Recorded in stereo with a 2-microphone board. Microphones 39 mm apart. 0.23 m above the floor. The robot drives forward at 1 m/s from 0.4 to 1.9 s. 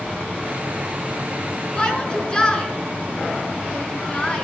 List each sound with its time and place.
1.8 s a shout: 20° left (ahead or behind), 3 m